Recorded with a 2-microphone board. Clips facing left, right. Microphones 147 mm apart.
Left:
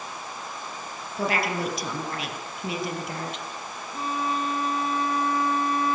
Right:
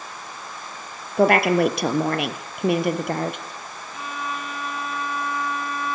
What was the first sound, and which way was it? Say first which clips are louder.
A woman speaking: right 10 dB; 60° right (ahead or behind).